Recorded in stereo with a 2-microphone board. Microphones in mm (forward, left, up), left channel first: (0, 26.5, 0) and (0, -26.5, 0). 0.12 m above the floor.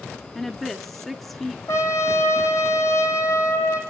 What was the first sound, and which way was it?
A woman speaking, 5° left (ahead or behind).